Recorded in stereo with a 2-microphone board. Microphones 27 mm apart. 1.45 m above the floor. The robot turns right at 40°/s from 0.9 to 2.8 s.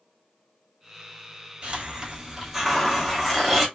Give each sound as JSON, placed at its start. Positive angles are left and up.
{"t": 1.6, "sound": "a hiss", "azimuth_deg": -40, "distance_m": 1.4}